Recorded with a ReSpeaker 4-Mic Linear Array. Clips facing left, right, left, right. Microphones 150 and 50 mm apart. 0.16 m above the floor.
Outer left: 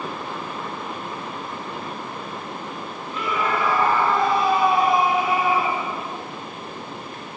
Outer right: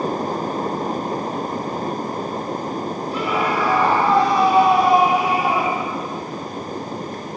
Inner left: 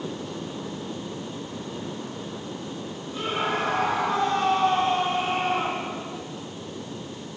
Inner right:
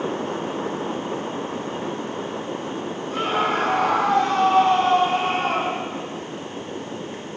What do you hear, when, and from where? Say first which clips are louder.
3.1 s a scream: outer right 2 dB, inner right 5 dB; 80° right, 7.5 m; by 5.9 s 75° right (ahead or behind), 7 m